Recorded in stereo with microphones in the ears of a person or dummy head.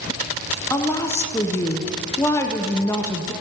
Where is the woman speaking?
15° left (ahead or behind), 0.6 m.